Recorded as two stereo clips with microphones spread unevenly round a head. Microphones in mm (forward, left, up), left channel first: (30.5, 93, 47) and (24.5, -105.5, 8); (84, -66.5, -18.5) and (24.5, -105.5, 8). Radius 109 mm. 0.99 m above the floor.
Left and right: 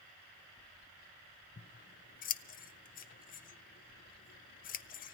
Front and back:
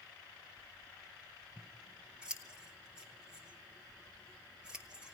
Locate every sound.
1.6 s scissors: 105° left, 0.6 m